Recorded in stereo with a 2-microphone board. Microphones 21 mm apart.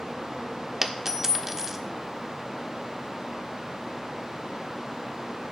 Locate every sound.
0.8 s a dropped coin: 20° right (ahead or behind), 1.1 m